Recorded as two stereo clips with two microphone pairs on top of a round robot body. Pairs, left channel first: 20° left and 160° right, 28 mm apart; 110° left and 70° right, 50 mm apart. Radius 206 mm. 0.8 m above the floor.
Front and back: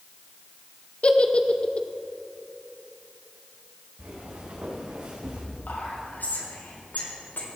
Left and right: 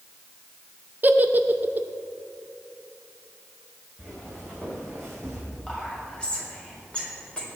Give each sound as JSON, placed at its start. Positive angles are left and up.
{"t": 1.0, "sound": "a giggle", "azimuth_deg": -25, "distance_m": 0.9}
{"t": 4.0, "sound": "footsteps", "azimuth_deg": -175, "distance_m": 4.5}
{"t": 5.7, "sound": "whispering", "azimuth_deg": 35, "distance_m": 4.0}